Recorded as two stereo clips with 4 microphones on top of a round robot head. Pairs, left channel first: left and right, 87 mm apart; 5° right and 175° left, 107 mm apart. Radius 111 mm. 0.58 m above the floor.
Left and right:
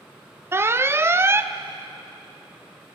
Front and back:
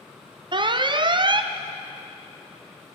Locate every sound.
0.5 s an alarm: 150° right, 0.8 m